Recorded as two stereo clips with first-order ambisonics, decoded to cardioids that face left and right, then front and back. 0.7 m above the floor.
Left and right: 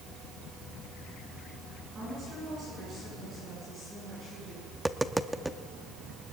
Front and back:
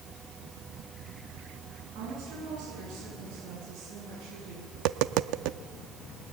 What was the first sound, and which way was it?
A woman speaking, 155° right.